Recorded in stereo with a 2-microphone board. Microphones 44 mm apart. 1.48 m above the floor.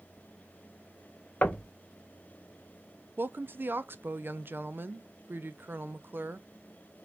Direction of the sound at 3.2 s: 50° right (ahead or behind).